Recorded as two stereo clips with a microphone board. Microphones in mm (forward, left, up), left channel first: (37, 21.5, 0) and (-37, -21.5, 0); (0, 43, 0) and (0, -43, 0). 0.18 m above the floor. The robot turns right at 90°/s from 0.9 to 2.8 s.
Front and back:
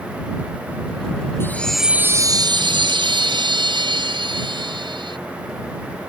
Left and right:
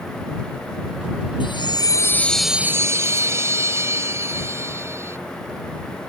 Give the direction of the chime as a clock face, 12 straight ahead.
9 o'clock.